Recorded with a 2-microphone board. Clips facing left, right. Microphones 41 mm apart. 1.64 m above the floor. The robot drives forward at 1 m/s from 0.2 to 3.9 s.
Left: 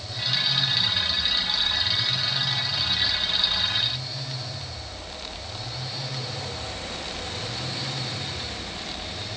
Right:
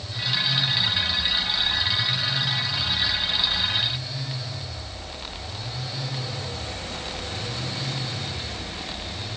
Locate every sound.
Only background noise.